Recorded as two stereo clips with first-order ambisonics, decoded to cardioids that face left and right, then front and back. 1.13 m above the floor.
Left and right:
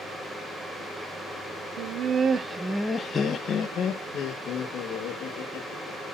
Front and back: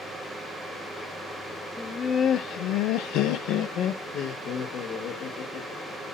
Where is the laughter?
80° right, 0.5 m; by 6.2 s 45° left, 2 m.